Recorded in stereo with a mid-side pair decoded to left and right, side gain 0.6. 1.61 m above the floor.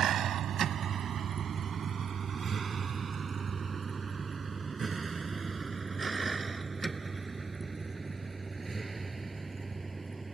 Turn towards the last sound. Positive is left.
turn(degrees=-15)